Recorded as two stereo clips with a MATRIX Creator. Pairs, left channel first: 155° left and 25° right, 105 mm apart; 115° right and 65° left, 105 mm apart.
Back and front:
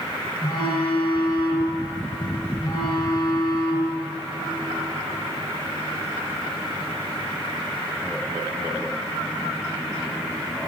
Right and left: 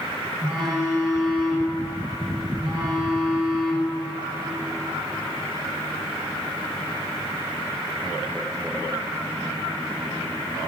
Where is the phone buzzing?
120° left, 1.6 m.